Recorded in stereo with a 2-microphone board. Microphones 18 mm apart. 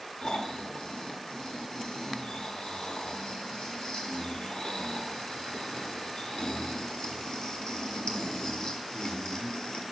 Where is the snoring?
55° left (ahead or behind), 1.4 m.